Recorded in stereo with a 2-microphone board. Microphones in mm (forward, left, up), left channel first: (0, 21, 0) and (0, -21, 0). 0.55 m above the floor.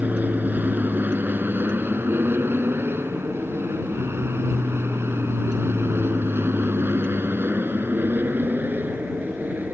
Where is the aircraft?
45° right (ahead or behind); by 9.8 s 50° right (ahead or behind).